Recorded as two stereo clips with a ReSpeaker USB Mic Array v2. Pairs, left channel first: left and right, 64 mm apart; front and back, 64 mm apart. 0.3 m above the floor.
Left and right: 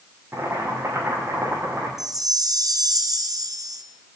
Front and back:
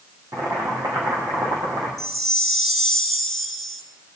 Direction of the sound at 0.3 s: 145° right.